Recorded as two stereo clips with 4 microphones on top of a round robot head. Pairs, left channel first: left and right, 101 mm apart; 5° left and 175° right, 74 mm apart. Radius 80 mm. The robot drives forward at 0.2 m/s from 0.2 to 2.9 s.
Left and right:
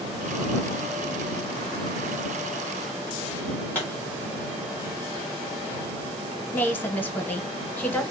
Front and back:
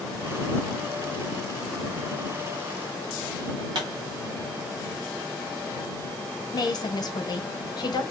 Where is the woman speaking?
20° left, 0.8 m.